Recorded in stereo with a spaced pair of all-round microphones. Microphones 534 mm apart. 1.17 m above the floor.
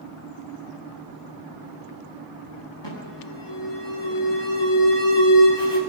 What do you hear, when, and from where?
2.8 s an alarm: 50° left (ahead or behind), 8.5 m